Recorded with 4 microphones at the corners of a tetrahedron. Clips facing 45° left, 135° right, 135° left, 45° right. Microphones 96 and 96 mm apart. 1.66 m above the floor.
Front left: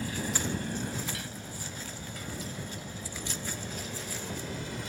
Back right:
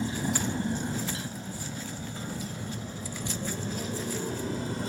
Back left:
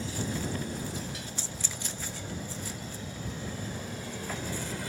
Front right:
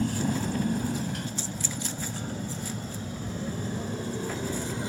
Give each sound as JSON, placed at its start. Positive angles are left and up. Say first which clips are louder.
{"t": 0.0, "sound": "a motorcycle", "louder": "back right 4 dB, front right 6 dB", "azimuth_deg": -70}